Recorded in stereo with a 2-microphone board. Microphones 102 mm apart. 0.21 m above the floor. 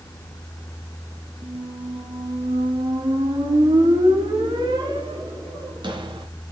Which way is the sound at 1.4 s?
50° right (ahead or behind).